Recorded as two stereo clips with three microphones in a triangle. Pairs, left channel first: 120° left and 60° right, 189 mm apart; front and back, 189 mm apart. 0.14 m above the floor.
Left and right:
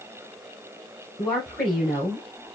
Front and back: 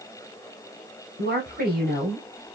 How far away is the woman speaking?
About 2.5 m.